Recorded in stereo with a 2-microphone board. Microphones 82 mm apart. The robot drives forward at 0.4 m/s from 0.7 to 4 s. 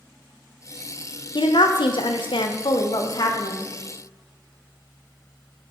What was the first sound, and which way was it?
A woman speaking, 65° left (ahead or behind).